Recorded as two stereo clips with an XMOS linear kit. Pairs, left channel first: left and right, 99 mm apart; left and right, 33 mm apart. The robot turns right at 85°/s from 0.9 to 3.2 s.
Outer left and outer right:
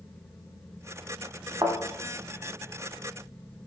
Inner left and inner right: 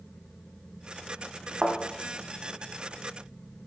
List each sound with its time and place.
1.6 s a thud: 45° right (ahead or behind), 0.5 m; by 1.8 s 55° right (ahead or behind), 0.5 m